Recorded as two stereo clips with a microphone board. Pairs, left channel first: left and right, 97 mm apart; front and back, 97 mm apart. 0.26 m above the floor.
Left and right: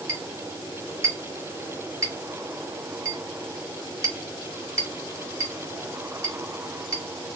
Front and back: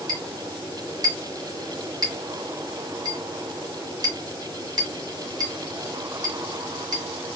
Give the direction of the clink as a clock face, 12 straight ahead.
5 o'clock.